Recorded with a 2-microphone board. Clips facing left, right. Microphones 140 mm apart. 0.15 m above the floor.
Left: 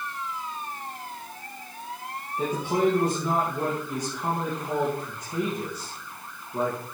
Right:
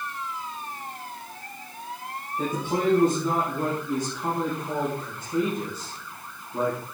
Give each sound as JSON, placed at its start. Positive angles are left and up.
{"t": 2.4, "sound": "a man speaking", "side_deg": 15, "distance_m": 4.0}